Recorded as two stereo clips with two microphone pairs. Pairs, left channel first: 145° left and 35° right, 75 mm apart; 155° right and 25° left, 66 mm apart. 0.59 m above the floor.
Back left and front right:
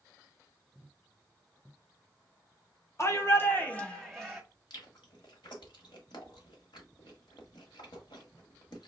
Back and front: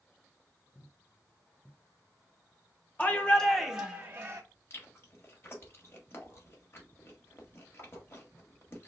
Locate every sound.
3.0 s a shout: 160° left, 1.0 m; by 4.4 s 45° left, 1.0 m
4.7 s chewing: 155° left, 1.5 m